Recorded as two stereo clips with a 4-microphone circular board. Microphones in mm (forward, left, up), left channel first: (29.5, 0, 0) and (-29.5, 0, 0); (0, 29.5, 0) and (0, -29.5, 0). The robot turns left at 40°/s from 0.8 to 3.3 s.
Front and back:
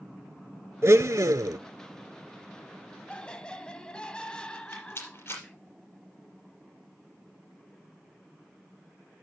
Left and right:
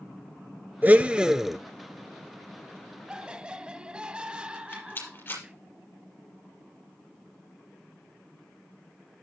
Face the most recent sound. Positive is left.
turn(degrees=40)